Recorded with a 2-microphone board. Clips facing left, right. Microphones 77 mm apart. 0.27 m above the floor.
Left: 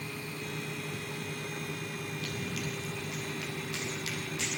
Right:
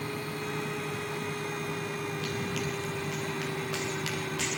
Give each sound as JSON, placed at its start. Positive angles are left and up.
{"t": 2.2, "sound": "running footsteps", "side_deg": -80, "distance_m": 8.5}